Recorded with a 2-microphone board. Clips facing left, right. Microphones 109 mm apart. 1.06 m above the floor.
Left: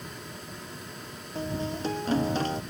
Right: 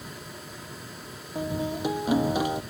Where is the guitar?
10° right (ahead or behind).